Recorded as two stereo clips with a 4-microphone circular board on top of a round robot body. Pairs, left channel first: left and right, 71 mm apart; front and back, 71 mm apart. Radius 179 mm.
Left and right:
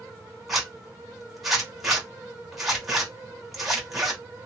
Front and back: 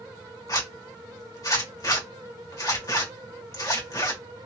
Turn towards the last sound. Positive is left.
turn(degrees=0)